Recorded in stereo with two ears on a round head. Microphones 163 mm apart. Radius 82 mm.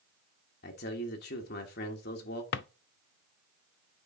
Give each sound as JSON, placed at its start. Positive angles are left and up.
{"t": 0.6, "sound": "a man speaking", "side_deg": 55, "distance_m": 1.4}
{"t": 2.5, "sound": "a drawer", "side_deg": 60, "distance_m": 0.5}